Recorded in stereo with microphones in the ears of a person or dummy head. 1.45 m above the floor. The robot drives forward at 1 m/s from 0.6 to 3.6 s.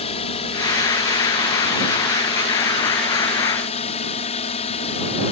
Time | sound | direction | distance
0.0 | a drone | 35° left (ahead or behind) | ?